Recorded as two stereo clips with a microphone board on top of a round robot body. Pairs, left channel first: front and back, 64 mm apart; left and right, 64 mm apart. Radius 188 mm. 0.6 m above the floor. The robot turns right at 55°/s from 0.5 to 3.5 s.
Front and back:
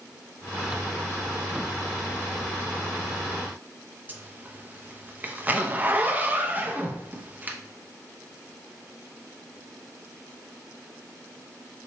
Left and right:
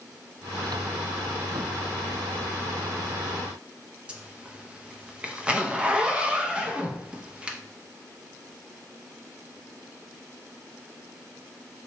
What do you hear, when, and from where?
4.1 s a zipper: 150° right, 0.8 m